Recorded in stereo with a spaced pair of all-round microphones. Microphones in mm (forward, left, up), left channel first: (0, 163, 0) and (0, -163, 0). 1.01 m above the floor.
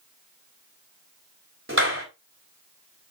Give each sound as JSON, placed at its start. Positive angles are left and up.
{"t": 1.7, "sound": "a clap", "side_deg": -40, "distance_m": 4.0}